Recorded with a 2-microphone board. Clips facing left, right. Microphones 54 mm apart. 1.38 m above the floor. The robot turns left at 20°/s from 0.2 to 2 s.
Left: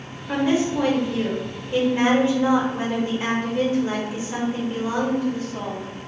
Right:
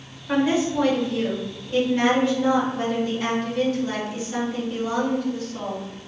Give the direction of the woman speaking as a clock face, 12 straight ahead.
6 o'clock.